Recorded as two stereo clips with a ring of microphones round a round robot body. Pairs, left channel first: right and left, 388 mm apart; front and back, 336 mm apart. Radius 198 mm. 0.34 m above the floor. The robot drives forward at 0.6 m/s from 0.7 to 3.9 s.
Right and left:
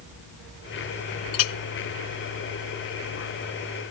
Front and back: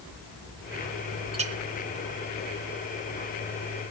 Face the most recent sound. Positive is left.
turn(degrees=-165)